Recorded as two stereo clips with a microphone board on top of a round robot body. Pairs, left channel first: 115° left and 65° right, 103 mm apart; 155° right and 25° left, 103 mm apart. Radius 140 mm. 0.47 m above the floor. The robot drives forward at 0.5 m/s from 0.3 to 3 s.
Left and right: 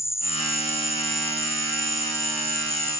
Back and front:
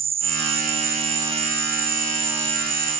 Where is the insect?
45° left; by 3.0 s 55° left.